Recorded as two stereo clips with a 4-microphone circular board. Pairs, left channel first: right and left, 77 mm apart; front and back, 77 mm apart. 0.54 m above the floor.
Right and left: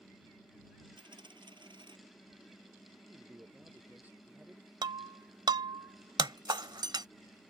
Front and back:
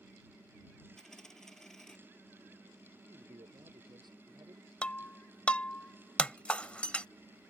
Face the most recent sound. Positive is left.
turn(degrees=75)